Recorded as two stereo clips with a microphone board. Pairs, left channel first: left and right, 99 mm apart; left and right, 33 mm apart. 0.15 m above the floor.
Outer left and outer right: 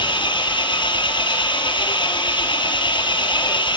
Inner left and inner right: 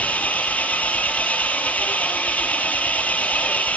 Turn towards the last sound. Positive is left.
turn(degrees=60)  # may be behind; listen again after turning